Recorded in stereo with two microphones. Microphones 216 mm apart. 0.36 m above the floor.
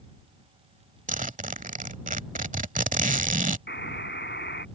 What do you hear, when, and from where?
1.1 s a zipper: 40° right (ahead or behind)
3.7 s a buzzer: 55° left (ahead or behind)